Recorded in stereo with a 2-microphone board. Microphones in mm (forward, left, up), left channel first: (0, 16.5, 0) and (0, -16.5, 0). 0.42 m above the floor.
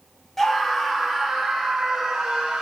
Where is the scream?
10° left (ahead or behind), 0.9 m; by 2.6 s 15° right (ahead or behind), 1.6 m.